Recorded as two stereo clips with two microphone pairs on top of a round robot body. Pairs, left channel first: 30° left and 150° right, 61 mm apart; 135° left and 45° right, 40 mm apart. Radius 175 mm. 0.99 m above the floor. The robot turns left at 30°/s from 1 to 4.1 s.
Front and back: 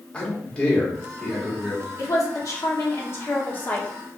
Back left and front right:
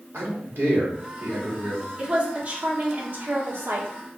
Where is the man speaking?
45° right, 1.4 m; by 1.9 s 70° right, 1.4 m.